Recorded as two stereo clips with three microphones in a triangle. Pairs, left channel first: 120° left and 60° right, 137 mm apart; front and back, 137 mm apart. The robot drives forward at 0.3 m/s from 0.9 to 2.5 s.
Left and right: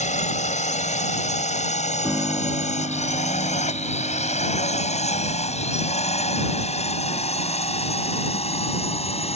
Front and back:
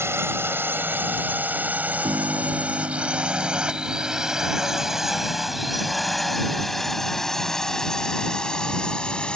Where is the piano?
135° right; by 6.4 s 140° right.